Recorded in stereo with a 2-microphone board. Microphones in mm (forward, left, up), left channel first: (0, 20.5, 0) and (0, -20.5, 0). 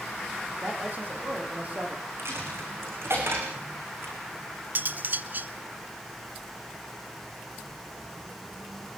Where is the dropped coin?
75° right (ahead or behind), 7 m.